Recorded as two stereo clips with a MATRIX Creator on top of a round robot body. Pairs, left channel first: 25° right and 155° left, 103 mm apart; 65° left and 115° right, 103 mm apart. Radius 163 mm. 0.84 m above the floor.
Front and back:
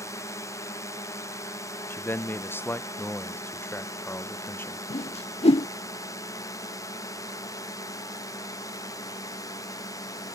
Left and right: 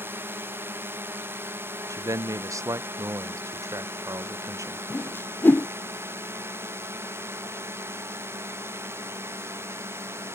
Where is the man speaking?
80° right.